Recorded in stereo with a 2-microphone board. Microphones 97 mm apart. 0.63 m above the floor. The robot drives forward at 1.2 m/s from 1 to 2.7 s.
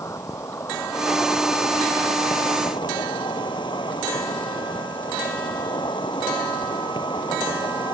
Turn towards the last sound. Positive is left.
turn(degrees=55)  # may be behind; listen again after turning